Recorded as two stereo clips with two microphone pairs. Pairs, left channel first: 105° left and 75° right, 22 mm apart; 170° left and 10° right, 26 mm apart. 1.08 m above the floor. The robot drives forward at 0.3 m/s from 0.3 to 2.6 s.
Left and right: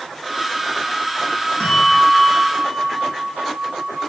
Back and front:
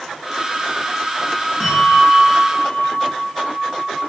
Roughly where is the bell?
Left.